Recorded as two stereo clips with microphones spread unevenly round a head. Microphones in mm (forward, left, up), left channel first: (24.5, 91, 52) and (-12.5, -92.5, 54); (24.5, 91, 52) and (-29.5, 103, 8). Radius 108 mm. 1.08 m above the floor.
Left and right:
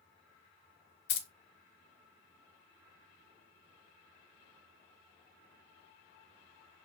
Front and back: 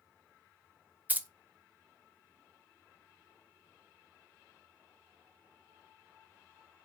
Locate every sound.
1.1 s keys jangling: 110° left, 0.6 m